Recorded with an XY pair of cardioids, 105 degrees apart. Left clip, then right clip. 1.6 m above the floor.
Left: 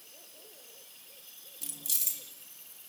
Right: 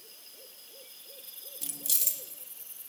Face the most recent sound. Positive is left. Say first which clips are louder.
# right 3 dB
turn(degrees=-20)